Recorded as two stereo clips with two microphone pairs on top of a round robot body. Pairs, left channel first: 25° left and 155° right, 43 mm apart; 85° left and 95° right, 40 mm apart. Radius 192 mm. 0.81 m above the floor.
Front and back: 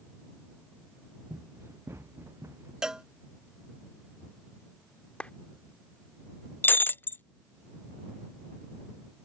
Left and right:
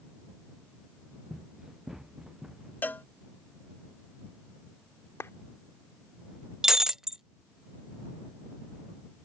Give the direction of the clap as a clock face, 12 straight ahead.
9 o'clock.